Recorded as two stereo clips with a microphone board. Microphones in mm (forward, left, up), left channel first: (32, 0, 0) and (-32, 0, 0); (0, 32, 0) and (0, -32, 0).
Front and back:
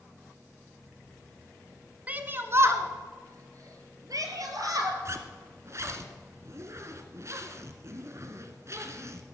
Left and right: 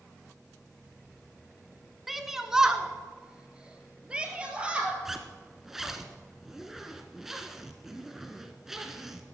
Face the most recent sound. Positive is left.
turn(degrees=-175)